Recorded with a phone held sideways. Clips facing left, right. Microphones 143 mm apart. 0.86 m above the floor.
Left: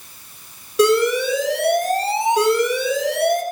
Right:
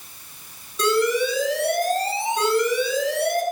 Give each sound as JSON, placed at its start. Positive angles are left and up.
{"t": 0.8, "sound": "an alarm", "side_deg": 75, "distance_m": 4.5}